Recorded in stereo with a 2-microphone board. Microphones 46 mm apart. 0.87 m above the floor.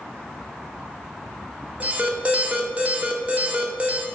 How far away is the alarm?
About 0.5 m.